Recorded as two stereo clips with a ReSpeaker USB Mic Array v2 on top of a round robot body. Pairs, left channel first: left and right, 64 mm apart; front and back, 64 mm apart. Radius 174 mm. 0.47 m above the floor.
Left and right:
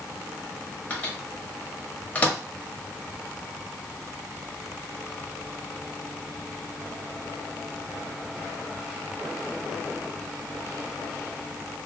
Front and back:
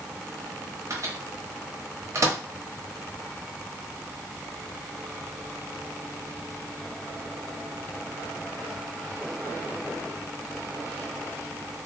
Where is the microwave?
155° left, 1.1 m.